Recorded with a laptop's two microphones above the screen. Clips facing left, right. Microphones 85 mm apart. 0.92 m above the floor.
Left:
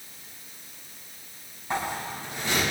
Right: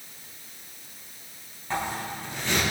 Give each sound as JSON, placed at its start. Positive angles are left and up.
{"t": 1.7, "sound": "a zipper", "side_deg": 15, "distance_m": 6.0}